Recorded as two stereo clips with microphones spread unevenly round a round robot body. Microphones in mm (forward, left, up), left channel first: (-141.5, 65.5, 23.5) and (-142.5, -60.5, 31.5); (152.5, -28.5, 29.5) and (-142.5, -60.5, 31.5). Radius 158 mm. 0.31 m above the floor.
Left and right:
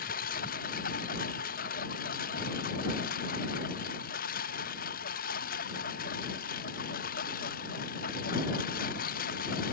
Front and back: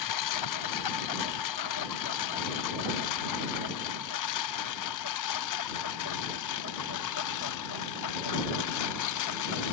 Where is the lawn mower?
40° left; by 9.7 s 50° left.